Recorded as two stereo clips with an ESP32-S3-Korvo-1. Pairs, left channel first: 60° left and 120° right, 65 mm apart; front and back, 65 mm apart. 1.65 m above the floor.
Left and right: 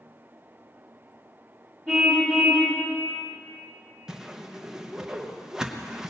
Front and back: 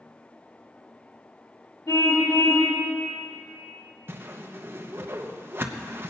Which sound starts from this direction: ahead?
A car horn, at 1.9 s.